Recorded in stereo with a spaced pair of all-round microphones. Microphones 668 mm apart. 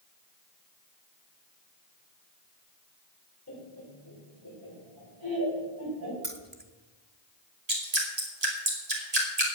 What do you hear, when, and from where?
3.5 s laughter: 20° left (ahead or behind), 3.5 m; by 6.1 s 35° left (ahead or behind), 4.5 m
6.2 s keys jangling: 15° right (ahead or behind), 1.1 m
7.7 s dripping: 65° right (ahead or behind), 2.5 m